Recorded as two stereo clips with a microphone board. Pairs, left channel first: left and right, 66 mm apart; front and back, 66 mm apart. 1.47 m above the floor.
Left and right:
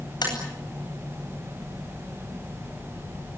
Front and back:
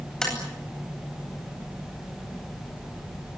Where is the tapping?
80° left, 9.5 m.